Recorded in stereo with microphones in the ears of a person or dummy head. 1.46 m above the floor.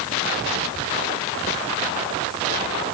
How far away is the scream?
I don't hear a scream.